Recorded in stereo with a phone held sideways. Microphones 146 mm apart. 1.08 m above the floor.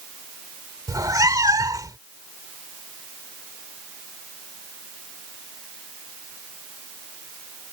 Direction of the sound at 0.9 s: 25° right (ahead or behind).